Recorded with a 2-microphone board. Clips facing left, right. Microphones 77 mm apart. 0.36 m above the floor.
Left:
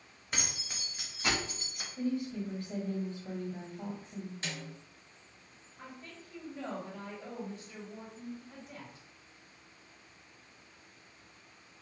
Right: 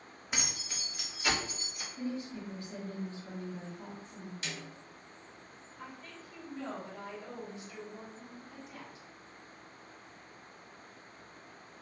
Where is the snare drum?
35° left (ahead or behind), 1.2 m.